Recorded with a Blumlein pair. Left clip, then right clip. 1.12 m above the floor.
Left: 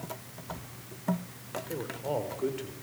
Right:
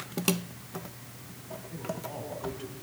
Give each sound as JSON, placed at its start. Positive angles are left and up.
{"t": 1.7, "sound": "a man speaking", "azimuth_deg": 50, "distance_m": 4.0}